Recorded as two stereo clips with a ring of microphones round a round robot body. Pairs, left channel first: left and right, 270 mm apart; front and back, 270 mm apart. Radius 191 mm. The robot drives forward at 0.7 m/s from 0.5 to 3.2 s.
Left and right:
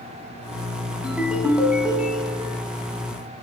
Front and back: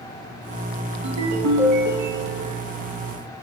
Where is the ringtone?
175° right, 2.5 m.